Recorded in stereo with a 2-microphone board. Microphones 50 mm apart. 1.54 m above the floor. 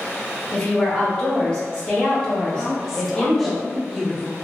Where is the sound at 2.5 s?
Centre (ahead or behind), 0.5 m.